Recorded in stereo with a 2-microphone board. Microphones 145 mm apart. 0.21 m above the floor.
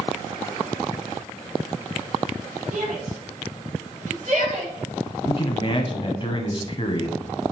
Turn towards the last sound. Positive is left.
turn(degrees=35)  # may be behind; listen again after turning